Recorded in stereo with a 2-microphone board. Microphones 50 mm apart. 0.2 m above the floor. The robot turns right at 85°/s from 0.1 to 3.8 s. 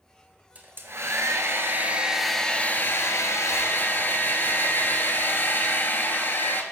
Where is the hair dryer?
145° right, 1.1 m; by 6.6 s 130° left, 1.1 m.